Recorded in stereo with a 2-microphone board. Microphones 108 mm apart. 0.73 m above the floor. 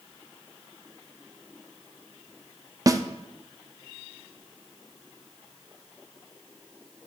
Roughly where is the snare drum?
Right.